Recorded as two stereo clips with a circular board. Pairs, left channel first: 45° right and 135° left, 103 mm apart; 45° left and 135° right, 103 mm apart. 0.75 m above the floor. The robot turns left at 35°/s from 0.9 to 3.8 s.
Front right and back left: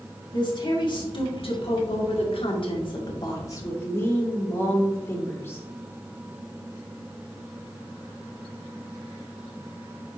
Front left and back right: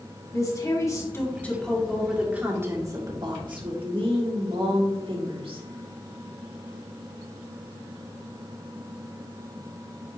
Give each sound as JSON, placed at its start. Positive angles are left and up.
{"t": 0.3, "sound": "a woman speaking", "azimuth_deg": -10, "distance_m": 2.0}